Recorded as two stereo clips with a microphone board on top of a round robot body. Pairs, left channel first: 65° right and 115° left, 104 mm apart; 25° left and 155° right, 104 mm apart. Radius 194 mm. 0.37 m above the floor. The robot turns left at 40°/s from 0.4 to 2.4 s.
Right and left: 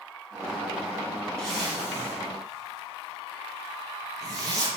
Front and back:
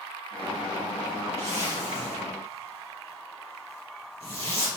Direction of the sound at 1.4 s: 150° right.